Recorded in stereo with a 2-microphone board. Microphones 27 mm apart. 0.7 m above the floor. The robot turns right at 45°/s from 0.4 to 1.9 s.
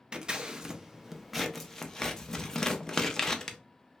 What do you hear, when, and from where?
0.1 s scissors: 35° right (ahead or behind), 0.6 m; by 3.6 s 20° left (ahead or behind), 0.6 m